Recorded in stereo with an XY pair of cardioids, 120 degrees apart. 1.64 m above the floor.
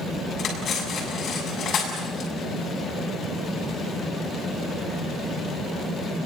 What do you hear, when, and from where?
0.4 s cutlery clinking: 55° left, 7 m